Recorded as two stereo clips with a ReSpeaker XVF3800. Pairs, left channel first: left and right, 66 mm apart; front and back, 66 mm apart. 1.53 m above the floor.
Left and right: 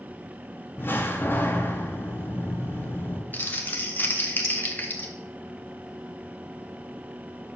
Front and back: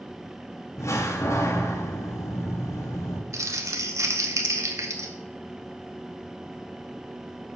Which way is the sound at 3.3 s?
150° left.